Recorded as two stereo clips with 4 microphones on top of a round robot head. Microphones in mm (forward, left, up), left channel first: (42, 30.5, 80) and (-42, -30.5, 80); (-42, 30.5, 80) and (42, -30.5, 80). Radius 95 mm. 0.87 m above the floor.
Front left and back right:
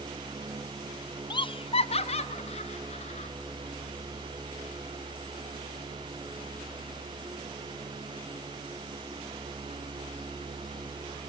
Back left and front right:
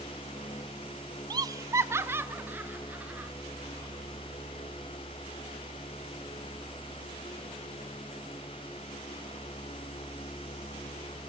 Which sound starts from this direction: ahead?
Laughter, at 1.3 s.